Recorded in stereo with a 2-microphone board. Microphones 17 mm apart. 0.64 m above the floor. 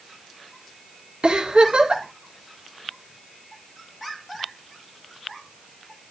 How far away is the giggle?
About 1.8 m.